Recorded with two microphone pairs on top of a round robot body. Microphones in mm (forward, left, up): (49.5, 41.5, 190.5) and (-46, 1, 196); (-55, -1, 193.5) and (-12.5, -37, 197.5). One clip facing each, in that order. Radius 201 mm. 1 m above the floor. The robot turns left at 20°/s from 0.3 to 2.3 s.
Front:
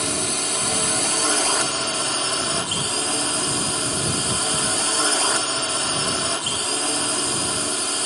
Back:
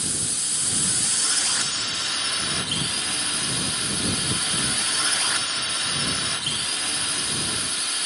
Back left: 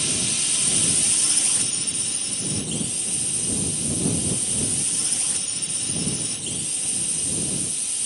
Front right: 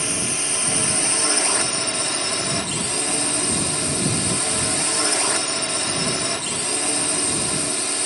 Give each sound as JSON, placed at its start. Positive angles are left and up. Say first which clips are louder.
{"t": 0.0, "sound": "a drone", "louder": "front 9 dB, front right 3 dB", "azimuth_deg": 15}